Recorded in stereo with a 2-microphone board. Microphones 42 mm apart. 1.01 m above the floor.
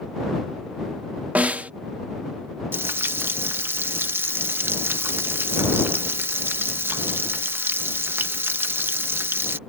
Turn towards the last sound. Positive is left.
turn(degrees=-60)  # may be behind; listen again after turning